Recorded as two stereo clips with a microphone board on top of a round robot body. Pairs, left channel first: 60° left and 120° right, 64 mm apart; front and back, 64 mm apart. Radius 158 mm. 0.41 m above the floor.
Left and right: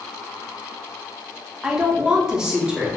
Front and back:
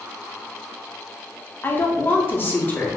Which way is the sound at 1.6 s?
45° right.